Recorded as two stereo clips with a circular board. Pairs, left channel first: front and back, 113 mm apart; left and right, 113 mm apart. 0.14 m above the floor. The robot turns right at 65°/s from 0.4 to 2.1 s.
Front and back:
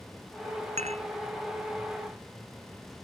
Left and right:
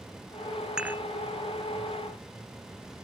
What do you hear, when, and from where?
0.8 s dishes clattering: 175° right; by 1.0 s 155° right